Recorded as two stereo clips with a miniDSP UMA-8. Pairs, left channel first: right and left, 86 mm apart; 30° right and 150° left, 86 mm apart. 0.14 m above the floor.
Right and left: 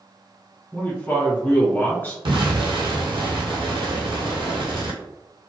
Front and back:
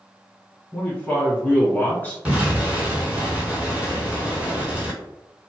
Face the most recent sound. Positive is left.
turn(degrees=75)